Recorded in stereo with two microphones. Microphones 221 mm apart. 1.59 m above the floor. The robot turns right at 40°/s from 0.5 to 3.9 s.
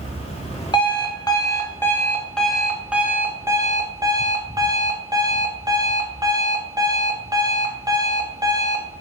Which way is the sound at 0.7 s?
20° left (ahead or behind).